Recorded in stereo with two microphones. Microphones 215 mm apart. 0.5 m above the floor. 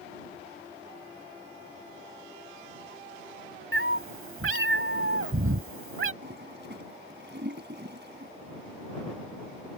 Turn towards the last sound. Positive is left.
turn(degrees=-55)  # may be behind; listen again after turning